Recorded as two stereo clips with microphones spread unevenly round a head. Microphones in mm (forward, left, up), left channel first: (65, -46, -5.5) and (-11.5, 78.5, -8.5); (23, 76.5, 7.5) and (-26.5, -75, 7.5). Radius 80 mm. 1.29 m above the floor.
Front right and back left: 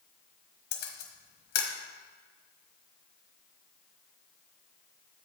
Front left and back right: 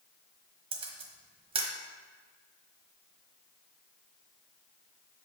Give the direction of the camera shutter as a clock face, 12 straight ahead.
2 o'clock.